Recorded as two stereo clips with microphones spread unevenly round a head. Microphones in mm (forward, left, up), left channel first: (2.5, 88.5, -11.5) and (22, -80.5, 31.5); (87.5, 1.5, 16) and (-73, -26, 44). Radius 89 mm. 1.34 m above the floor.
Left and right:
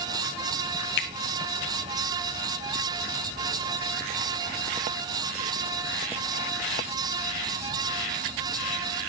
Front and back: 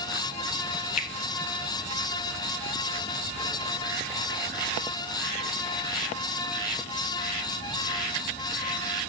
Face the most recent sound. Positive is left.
turn(degrees=60)